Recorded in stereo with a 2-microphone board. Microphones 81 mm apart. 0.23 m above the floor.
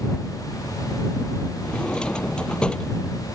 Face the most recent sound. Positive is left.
turn(degrees=15)  # may be behind; listen again after turning